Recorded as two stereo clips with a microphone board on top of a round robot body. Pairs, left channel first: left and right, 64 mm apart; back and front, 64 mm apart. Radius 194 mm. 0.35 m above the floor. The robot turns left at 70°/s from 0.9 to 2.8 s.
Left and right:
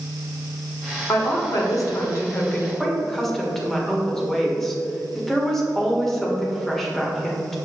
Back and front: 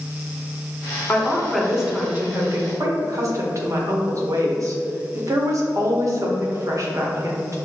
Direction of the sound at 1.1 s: 125° left.